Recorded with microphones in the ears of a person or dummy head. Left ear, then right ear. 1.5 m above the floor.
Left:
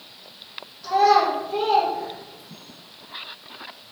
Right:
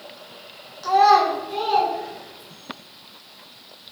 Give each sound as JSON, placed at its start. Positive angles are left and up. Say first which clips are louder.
{"t": 0.8, "sound": "a child speaking", "louder": "right 2 dB", "side_deg": -35, "distance_m": 0.5}